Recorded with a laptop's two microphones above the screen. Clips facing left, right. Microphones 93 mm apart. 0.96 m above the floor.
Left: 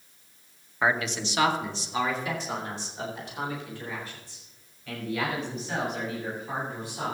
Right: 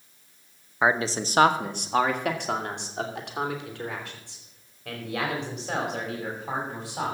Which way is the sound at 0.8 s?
20° right (ahead or behind).